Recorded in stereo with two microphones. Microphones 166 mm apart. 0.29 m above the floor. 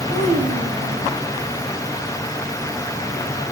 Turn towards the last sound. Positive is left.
turn(degrees=-50)  # may be behind; listen again after turning